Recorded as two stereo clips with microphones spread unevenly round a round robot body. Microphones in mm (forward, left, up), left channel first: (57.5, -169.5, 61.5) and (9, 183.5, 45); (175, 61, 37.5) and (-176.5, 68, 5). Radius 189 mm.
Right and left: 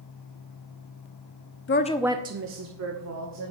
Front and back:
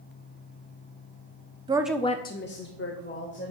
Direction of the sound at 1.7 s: 120° right.